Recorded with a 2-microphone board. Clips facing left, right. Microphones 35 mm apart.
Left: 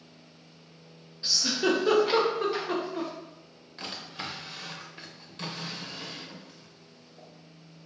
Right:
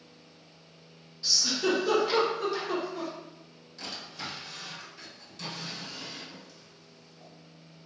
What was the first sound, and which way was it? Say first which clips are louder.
A giggle: left 2 dB; 30° left (ahead or behind).